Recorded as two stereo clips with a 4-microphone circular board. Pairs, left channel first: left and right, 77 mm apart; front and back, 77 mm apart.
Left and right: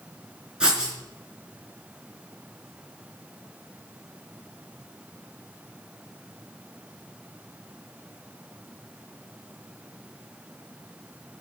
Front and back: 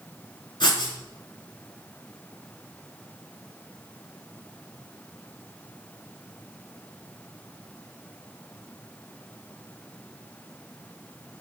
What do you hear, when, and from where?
0.6 s writing: 10° right, 4 m